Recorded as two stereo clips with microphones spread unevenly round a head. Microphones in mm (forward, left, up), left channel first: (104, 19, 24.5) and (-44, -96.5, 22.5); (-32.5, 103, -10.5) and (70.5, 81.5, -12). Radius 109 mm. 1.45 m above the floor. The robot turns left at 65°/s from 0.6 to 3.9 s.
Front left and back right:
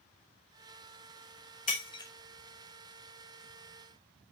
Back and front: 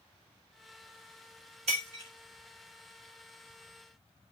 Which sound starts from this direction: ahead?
Breaking glass, at 1.7 s.